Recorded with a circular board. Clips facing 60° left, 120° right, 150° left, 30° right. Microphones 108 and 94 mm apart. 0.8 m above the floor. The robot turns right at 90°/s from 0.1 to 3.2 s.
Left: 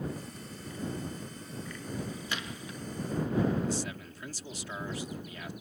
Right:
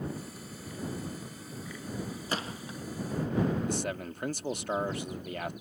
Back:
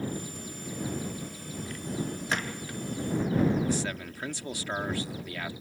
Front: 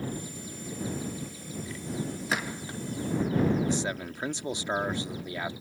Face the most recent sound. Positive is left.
turn(degrees=-95)